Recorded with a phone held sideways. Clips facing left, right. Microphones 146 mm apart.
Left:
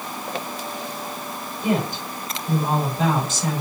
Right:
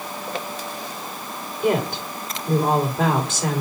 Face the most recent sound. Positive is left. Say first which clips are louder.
# right 2 dB
turn(degrees=-70)  # may be behind; listen again after turning